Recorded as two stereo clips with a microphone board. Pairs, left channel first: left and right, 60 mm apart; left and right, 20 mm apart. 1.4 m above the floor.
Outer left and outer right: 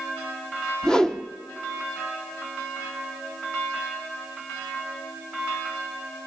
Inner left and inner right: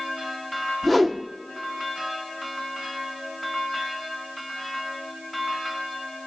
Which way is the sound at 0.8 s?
10° left (ahead or behind).